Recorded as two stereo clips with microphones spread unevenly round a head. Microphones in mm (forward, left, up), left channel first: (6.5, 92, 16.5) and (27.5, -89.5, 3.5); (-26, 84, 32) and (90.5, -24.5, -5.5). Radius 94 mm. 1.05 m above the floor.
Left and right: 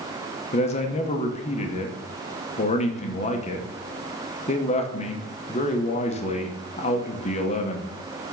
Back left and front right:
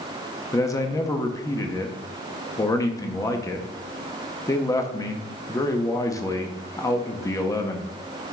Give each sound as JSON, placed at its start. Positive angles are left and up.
{"t": 0.5, "sound": "a man speaking", "azimuth_deg": 60, "distance_m": 0.9}